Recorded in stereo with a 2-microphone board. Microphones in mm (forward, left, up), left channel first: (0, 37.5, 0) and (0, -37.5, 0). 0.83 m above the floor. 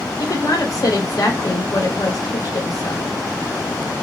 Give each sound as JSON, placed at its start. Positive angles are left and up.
{"t": 0.2, "sound": "a woman speaking", "side_deg": 55, "distance_m": 1.6}